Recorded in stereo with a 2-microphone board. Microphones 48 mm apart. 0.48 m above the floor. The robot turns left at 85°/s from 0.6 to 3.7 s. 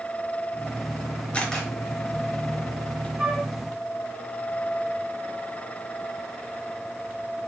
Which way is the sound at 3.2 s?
20° right (ahead or behind).